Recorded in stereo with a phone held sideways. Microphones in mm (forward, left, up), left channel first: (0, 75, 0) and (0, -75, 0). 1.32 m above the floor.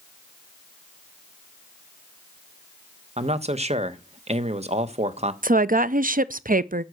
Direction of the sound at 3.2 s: 45° right (ahead or behind).